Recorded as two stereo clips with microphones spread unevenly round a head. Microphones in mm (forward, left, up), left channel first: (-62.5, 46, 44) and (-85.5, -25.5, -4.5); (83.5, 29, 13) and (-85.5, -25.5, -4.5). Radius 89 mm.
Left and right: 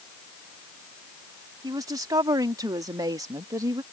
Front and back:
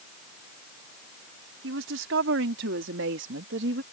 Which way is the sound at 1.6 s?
145° right.